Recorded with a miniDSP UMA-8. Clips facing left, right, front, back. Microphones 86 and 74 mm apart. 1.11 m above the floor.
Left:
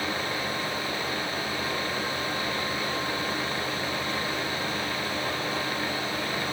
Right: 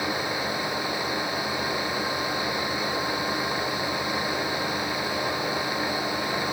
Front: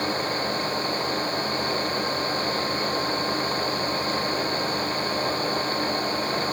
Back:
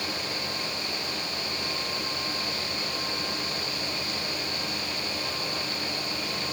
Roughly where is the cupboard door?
No cupboard door in this recording.